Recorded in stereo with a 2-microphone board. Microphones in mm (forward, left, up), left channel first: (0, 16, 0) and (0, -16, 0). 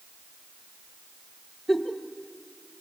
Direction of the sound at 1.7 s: 5° right (ahead or behind).